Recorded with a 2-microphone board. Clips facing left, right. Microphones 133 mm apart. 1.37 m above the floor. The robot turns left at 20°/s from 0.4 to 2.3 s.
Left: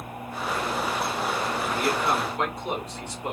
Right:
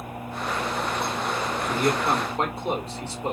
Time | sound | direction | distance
1.7 | a man speaking | 45° right (ahead or behind) | 2 m